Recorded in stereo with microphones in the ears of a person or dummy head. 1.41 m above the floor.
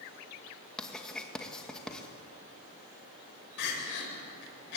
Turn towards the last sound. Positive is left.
turn(degrees=70)  # may be behind; listen again after turning